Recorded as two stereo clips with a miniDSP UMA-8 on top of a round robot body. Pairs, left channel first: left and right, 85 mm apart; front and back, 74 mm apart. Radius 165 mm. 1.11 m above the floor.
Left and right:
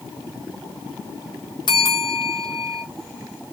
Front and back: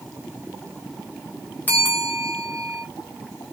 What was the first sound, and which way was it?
A bell, 65° left.